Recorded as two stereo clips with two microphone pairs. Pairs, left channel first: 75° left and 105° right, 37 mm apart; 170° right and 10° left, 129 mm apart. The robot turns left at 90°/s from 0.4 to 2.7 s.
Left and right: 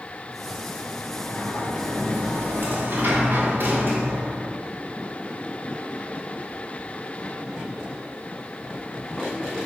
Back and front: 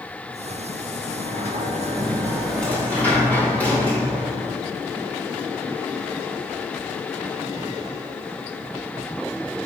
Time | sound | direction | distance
1.1 | a sliding door | 50° left | 2.5 m